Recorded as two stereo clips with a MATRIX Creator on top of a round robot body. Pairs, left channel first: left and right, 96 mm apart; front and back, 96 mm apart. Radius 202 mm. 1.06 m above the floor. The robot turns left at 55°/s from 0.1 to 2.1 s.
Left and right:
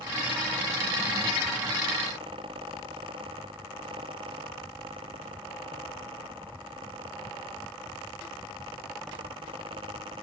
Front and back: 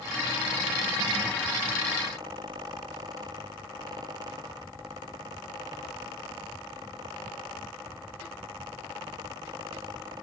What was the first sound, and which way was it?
Only background noise.